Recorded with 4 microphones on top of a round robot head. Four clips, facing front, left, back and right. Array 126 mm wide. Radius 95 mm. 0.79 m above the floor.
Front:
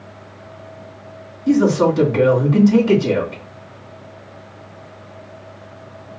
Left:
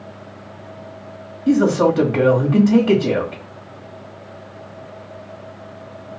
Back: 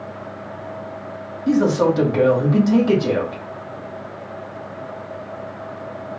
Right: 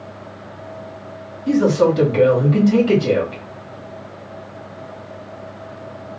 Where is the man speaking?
130° left, 1.5 m.